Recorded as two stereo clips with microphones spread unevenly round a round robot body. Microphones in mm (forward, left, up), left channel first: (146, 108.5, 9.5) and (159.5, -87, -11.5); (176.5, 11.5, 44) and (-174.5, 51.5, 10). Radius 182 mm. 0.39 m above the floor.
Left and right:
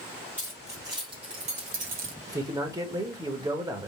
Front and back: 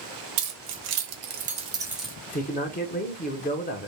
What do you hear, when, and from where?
0.4 s keys jangling: 170° right, 1.3 m; by 2.1 s 95° right, 1.0 m
2.3 s a man speaking: 60° right, 0.9 m